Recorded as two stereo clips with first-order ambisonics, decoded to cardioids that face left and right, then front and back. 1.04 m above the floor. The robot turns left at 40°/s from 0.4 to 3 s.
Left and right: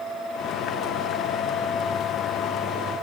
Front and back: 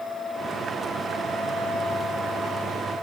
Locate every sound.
Only background noise.